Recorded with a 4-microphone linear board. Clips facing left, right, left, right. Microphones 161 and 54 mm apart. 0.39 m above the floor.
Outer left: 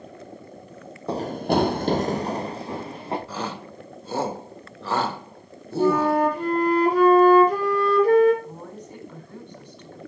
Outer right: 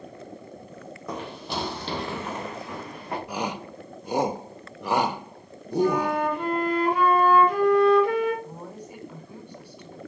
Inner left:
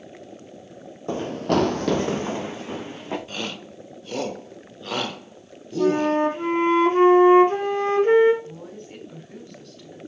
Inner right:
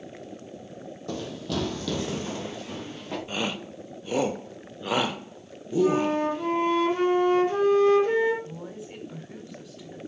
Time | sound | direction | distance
1.1 | running footsteps | 30° left (ahead or behind) | 0.7 m
3.3 | a shout | 15° right (ahead or behind) | 0.8 m
5.8 | a flute | 40° left (ahead or behind) | 3 m
8.4 | a woman speaking | 10° right (ahead or behind) | 2.5 m